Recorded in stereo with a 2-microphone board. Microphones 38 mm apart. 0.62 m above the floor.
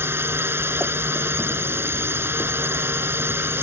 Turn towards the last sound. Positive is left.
turn(degrees=-80)